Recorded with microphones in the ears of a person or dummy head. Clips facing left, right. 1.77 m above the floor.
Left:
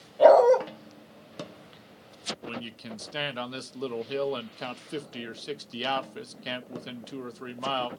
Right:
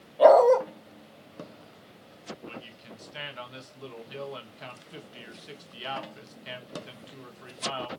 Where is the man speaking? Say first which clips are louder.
Left 5 dB; 70° left (ahead or behind), 1.1 m.